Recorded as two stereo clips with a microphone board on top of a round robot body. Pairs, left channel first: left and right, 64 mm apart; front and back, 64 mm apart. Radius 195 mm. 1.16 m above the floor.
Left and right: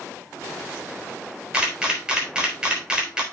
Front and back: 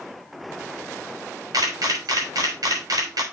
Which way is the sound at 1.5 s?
165° right.